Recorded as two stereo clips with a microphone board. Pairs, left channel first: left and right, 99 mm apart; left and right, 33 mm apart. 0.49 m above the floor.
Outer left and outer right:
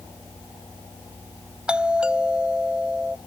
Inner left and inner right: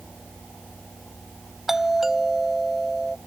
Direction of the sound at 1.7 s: 10° right (ahead or behind).